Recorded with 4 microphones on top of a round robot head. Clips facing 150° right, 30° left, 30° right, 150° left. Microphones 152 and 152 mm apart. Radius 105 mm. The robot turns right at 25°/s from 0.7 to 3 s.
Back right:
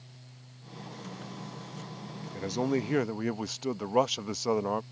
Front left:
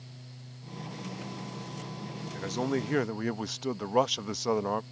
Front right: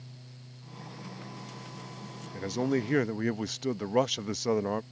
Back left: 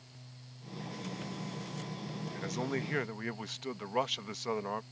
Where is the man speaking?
80° right; by 4.8 s 65° right.